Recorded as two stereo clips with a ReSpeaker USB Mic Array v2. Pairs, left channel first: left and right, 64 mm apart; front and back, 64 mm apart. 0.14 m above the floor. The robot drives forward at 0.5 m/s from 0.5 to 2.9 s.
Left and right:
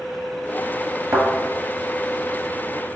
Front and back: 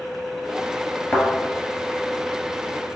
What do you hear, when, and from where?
1.1 s a thud: 50° right, 1.2 m; by 1.3 s 55° right, 1.2 m